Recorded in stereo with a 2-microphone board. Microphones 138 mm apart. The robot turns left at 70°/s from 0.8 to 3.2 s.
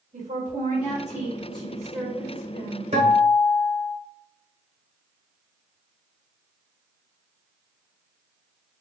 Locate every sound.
0.1 s a woman speaking: 85° right, 1.6 m; by 2.8 s 135° left, 1.6 m
2.9 s a guitar: 45° right (ahead or behind), 1.1 m; by 4.0 s 60° right (ahead or behind), 1.1 m